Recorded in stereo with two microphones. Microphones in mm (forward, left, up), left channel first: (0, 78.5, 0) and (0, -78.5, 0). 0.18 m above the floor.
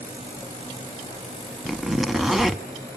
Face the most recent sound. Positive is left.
turn(degrees=0)  # may be behind; listen again after turning